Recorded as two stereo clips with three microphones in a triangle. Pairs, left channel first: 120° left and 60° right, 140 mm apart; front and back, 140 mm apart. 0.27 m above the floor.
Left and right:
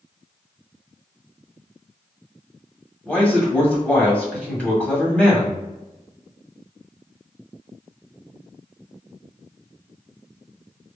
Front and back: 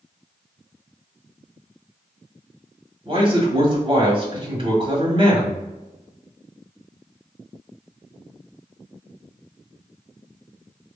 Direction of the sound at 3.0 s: 165° right.